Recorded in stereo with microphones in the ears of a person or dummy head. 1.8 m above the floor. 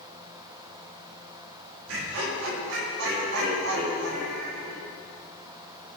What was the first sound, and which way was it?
Laughter, 80° right.